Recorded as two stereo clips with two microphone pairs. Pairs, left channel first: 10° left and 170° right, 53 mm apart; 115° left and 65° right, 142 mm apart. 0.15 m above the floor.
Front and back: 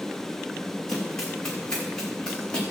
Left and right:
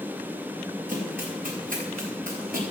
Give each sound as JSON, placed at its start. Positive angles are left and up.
{"t": 0.9, "sound": "running footsteps", "azimuth_deg": -70, "distance_m": 9.0}